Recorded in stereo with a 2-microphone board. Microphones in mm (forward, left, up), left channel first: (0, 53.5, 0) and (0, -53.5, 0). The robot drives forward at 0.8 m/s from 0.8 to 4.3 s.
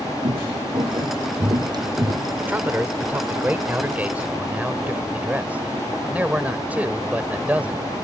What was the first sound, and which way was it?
Footsteps, 60° right (ahead or behind).